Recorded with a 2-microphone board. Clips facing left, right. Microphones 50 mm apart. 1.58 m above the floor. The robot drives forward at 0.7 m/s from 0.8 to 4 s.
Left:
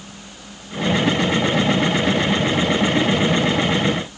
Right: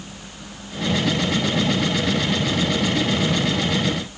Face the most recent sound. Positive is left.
No sound to turn to.